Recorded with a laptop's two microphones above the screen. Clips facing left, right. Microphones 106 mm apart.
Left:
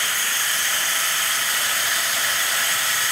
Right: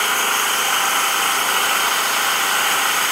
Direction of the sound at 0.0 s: 60° right (ahead or behind).